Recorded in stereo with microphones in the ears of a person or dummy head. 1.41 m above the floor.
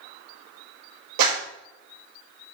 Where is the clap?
70° right (ahead or behind), 5 m.